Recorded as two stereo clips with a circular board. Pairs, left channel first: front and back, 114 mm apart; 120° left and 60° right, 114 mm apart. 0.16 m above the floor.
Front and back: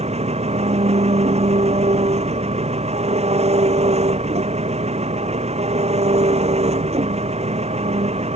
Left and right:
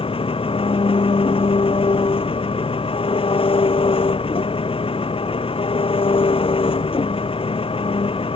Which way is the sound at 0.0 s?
155° left.